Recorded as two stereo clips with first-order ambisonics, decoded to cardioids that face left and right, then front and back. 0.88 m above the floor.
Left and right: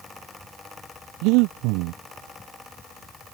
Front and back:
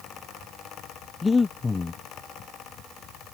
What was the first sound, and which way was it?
Breathing, 75° right.